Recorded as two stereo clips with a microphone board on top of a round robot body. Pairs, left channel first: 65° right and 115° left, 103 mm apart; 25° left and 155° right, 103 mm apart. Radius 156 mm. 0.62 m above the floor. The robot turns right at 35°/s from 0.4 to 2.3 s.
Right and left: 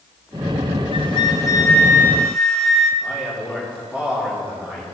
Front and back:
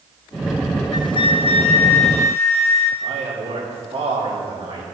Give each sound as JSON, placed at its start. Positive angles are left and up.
{"t": 0.9, "sound": "a flute", "azimuth_deg": -30, "distance_m": 0.6}
{"t": 3.0, "sound": "a man speaking", "azimuth_deg": -175, "distance_m": 2.5}